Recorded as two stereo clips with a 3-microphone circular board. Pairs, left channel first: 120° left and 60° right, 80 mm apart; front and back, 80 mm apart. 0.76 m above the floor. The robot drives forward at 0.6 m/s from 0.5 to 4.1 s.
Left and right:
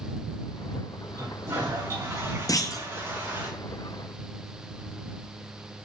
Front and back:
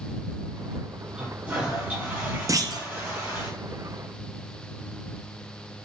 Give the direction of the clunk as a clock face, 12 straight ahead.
7 o'clock.